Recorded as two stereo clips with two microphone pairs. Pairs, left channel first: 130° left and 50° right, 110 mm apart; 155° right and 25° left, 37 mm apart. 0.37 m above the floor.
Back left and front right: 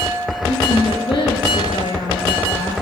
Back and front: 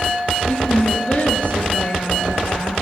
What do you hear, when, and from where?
0.5 s a woman speaking: 160° left, 6.5 m